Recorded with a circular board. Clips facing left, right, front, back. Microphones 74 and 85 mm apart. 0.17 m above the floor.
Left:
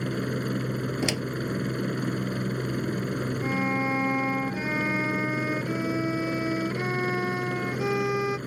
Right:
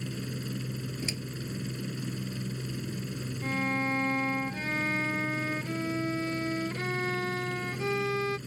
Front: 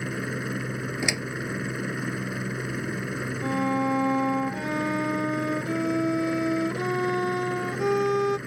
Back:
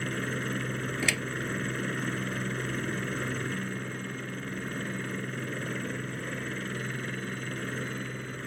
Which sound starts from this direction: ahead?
A violin, at 3.4 s.